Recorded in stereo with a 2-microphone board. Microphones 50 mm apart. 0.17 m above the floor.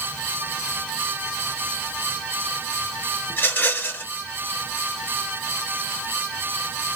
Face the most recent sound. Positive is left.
turn(degrees=45)  # may be behind; listen again after turning